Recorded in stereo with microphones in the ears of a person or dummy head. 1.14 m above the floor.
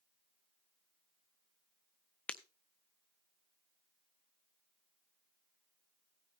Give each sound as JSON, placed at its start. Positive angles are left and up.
{"t": 2.3, "sound": "breaking glass", "side_deg": 5, "distance_m": 0.6}